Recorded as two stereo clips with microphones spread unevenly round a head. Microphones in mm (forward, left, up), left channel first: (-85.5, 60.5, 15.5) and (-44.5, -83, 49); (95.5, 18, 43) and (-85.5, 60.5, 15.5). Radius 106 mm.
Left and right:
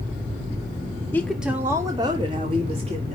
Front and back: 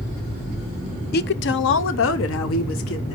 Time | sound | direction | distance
1.1 | a woman speaking | 25° left | 0.6 m